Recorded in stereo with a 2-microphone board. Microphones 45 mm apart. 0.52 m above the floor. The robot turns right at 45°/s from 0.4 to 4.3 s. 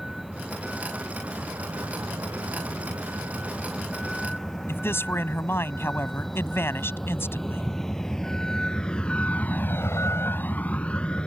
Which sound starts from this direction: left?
A man speaking, at 4.7 s.